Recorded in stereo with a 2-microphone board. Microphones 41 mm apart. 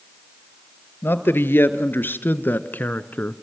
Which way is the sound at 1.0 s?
65° left (ahead or behind).